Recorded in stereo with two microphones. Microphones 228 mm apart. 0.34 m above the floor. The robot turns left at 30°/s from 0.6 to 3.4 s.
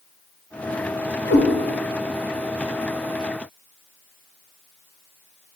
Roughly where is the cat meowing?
Left.